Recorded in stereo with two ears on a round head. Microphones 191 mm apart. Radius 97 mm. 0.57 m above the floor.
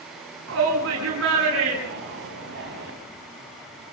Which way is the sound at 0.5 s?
60° right (ahead or behind).